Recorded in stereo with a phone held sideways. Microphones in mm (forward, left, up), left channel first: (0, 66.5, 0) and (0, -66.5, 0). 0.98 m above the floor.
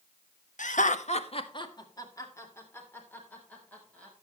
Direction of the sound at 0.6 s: 70° left (ahead or behind).